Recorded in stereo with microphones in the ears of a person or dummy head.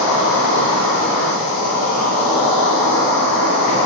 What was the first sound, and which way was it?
An insect, 65° left (ahead or behind).